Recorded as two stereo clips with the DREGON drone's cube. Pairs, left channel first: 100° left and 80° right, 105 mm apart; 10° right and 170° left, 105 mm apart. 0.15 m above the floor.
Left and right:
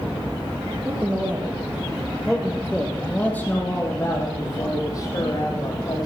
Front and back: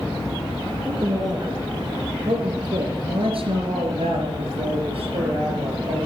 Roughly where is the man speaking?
Behind right.